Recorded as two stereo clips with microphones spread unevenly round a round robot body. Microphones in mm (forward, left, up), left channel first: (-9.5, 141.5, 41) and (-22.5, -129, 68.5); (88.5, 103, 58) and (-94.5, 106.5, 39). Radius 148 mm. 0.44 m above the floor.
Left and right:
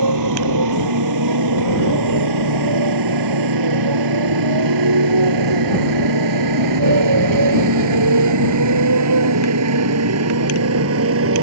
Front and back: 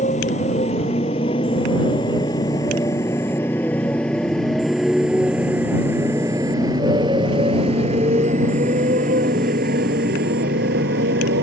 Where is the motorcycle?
65° right; by 11.4 s 135° right.